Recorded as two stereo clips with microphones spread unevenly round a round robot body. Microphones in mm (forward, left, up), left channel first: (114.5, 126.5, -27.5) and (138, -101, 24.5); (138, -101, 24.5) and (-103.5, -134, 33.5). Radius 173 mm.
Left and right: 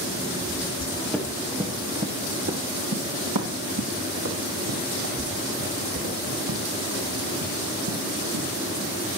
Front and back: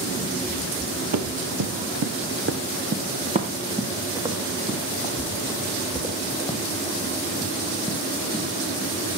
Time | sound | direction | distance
1.1 | running footsteps | 170° right | 3 m